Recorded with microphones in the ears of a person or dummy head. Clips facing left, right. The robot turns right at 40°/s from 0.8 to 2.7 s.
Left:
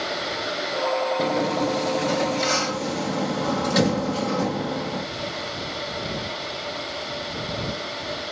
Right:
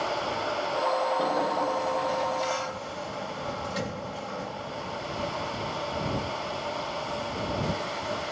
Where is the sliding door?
30° left; by 5.0 s 90° left.